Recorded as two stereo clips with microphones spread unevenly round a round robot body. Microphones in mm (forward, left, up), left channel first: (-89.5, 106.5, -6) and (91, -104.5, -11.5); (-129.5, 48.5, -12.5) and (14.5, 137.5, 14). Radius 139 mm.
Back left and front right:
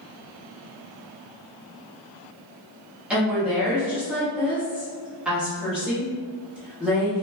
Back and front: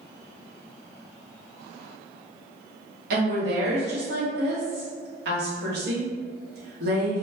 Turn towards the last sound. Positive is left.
turn(degrees=35)